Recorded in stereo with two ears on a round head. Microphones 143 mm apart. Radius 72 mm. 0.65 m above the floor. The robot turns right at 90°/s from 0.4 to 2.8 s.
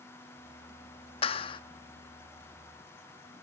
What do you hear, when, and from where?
1.2 s a clap: 85° left, 0.8 m; by 1.6 s 120° left, 0.8 m